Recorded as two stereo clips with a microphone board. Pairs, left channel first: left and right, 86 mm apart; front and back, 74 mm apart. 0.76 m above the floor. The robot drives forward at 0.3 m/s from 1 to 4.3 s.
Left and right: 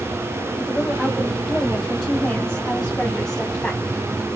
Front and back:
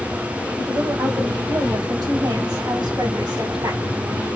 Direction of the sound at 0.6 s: 165° left.